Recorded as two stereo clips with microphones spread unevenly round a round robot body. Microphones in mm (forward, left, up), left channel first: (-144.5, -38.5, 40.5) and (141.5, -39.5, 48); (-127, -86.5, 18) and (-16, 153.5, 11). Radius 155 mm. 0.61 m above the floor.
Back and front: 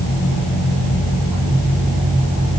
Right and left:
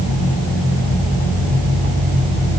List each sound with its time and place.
Only background noise.